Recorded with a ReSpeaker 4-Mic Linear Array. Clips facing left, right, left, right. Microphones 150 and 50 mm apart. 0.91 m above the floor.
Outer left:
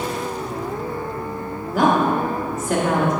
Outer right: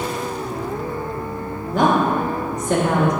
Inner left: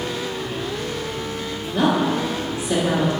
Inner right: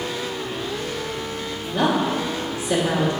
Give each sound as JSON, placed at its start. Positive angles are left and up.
{"t": 1.7, "sound": "a woman speaking", "side_deg": 5, "distance_m": 1.6}